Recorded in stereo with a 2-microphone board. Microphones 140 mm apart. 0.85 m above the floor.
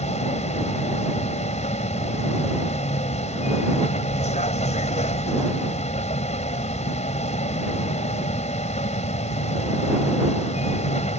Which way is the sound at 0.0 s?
50° left (ahead or behind).